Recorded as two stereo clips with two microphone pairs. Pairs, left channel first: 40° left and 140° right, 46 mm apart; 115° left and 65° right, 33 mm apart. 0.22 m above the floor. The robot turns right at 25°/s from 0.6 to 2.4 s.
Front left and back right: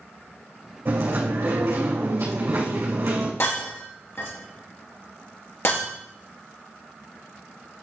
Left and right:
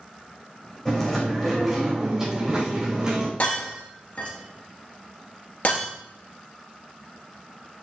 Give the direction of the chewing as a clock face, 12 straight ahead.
6 o'clock.